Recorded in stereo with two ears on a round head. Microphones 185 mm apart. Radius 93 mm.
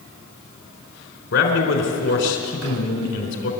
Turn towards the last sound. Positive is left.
turn(degrees=60)  # may be behind; listen again after turning